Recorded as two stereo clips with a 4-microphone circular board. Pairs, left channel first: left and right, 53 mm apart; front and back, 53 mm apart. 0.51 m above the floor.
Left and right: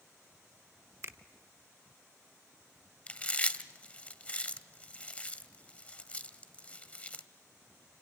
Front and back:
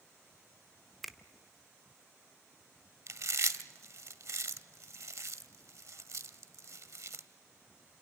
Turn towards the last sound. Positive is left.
turn(degrees=155)